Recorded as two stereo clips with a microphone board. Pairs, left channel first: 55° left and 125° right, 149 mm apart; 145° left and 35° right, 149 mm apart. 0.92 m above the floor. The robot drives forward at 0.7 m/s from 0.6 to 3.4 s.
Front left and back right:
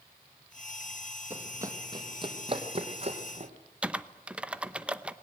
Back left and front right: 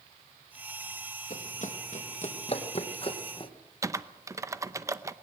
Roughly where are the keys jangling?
No keys jangling in this recording.